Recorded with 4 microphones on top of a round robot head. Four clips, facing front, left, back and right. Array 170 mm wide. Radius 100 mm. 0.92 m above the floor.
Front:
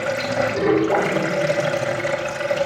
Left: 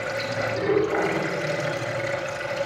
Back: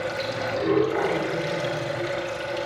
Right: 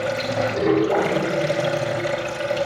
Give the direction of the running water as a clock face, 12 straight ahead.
1 o'clock.